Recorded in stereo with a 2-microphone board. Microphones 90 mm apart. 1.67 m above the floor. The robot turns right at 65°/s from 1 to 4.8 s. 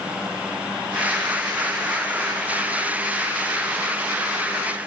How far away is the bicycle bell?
I don't hear a bicycle bell.